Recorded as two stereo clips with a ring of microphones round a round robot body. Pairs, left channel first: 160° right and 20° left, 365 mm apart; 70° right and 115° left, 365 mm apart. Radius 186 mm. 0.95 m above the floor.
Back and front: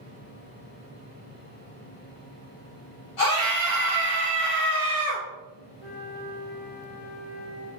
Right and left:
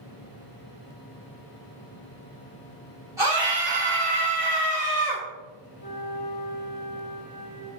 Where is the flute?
130° right, 3 m.